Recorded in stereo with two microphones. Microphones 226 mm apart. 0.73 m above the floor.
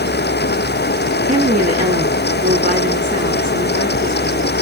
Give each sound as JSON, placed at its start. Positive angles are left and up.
{"t": 1.3, "sound": "a woman speaking", "side_deg": -35, "distance_m": 8.0}